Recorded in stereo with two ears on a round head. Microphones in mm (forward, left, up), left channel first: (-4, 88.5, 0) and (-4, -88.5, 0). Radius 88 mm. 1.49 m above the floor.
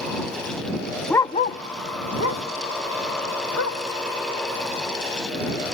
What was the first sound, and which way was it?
A dog barking, 5° left (ahead or behind).